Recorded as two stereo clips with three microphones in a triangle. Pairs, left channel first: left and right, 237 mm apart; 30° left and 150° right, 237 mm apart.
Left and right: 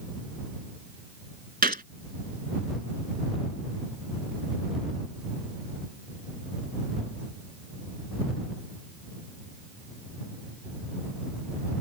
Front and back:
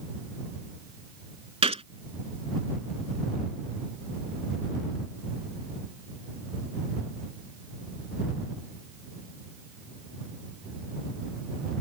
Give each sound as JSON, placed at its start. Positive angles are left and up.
{"t": 1.6, "sound": "a gunshot", "azimuth_deg": -100}